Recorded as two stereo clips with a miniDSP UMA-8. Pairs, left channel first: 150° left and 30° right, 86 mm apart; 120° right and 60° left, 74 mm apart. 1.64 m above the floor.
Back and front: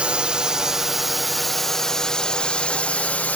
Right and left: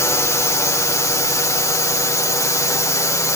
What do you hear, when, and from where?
0.0 s a drone: 100° right; by 3.4 s 145° right